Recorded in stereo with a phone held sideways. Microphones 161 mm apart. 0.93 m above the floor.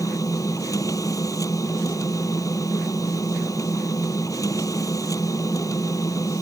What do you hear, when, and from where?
0.0 s a machine running: 20° left (ahead or behind)